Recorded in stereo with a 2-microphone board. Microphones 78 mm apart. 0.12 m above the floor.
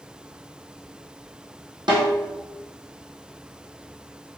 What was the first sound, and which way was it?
A snare drum, 75° right (ahead or behind).